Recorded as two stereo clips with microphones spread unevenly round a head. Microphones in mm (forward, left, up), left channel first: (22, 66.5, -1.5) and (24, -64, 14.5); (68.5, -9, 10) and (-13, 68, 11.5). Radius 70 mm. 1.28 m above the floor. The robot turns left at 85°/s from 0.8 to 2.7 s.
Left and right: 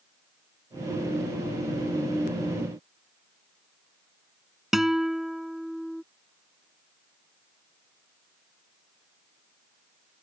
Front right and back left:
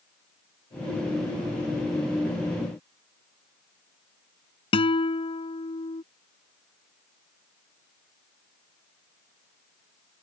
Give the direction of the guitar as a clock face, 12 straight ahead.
12 o'clock.